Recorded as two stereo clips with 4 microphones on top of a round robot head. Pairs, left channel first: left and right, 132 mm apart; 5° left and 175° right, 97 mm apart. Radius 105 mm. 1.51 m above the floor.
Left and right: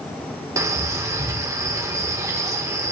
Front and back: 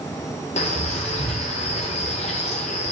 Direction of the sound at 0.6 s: 20° right.